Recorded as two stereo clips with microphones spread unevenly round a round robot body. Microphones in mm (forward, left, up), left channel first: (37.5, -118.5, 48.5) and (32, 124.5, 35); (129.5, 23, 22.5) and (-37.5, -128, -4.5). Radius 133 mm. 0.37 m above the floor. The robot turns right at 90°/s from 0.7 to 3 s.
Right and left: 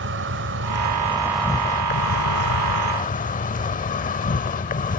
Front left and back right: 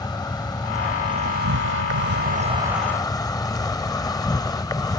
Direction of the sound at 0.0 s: 120° left.